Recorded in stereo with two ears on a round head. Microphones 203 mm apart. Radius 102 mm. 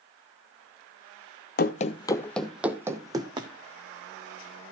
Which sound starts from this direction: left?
Running footsteps, at 1.6 s.